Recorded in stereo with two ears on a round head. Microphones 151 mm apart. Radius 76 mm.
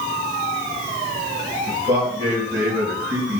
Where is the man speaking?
25° right (ahead or behind), 4 m; by 3.4 s 10° right (ahead or behind), 3.5 m.